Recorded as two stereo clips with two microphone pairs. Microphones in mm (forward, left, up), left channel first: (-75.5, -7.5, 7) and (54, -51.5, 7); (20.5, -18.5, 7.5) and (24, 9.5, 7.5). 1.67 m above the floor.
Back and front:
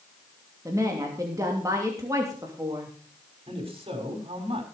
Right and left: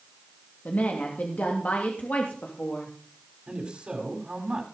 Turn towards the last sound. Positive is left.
turn(degrees=30)